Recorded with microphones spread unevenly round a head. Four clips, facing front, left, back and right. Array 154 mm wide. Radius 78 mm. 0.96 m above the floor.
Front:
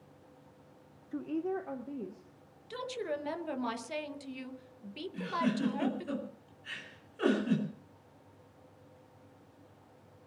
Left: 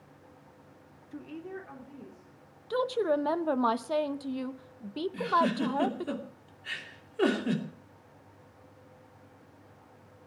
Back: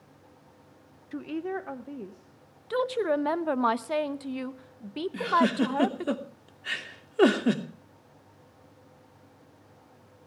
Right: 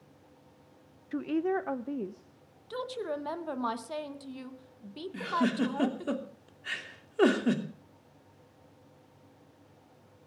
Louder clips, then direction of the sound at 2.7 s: Left 8 dB, back 11 dB; 135° left.